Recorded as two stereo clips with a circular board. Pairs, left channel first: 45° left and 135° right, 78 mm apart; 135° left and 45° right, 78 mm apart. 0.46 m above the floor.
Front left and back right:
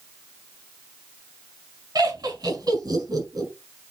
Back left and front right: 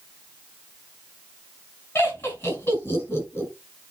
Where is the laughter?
165° right, 4.5 m.